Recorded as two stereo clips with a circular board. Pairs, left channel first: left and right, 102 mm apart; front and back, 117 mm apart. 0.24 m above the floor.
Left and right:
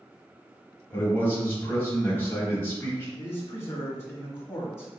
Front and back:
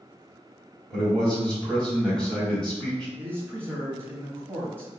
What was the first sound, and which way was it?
A man speaking, 75° left.